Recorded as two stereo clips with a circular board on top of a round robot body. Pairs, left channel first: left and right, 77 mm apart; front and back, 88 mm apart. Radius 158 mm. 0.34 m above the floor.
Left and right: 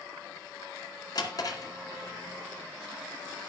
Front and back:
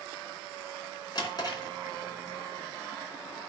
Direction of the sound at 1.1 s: 45° left.